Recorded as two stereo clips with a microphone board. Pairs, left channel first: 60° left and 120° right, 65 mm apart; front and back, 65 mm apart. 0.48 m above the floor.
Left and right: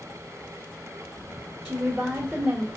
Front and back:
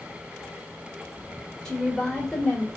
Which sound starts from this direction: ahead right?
A woman speaking, at 1.6 s.